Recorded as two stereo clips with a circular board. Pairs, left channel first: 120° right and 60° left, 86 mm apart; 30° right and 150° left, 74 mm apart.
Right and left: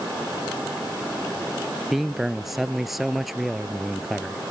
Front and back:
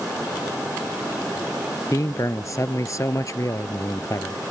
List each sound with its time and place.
1.9 s a man speaking: 25° right